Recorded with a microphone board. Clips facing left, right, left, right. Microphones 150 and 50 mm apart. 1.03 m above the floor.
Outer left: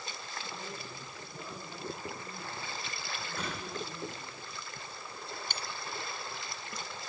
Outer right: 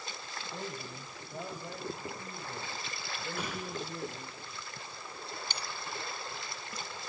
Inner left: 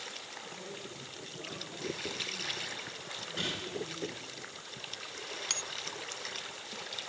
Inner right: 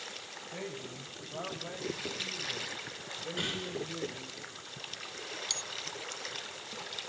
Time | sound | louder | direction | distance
0.5 | a man speaking | outer right 2 dB, inner right 3 dB | 70° right (ahead or behind) | 6 m
3.4 | a gunshot | outer right 1 dB, even | 10° right (ahead or behind) | 7.5 m
5.5 | a bell | even, inner left 1 dB | 50° left (ahead or behind) | 1.4 m